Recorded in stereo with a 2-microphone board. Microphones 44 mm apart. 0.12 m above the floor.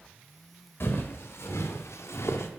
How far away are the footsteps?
About 1.6 m.